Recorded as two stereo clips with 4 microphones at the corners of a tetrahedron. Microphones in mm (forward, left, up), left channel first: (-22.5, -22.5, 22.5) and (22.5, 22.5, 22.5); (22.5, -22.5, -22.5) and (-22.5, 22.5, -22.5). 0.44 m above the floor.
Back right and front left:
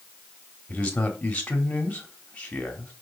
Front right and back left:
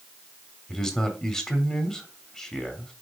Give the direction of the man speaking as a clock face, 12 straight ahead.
4 o'clock.